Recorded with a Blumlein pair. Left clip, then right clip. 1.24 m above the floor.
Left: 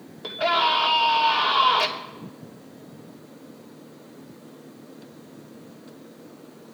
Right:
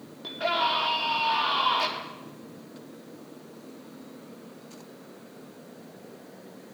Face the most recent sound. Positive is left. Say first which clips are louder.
# left 5 dB
turn(degrees=15)